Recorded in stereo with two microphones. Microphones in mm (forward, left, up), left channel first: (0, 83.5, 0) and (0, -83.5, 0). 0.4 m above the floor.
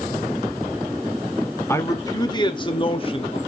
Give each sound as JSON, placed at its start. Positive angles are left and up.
{"t": 1.7, "sound": "a man speaking", "side_deg": 15, "distance_m": 0.8}